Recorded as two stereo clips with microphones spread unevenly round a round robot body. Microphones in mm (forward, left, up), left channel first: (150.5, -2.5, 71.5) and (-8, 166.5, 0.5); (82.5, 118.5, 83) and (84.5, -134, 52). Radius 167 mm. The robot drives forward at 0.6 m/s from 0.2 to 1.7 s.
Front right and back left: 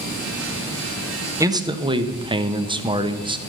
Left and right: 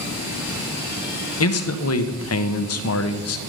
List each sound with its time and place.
1.4 s a man speaking: 70° left, 1.2 m; by 3.4 s 80° left, 1.1 m